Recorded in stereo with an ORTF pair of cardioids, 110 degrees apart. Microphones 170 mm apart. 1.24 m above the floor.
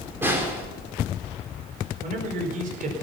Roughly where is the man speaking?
Ahead right.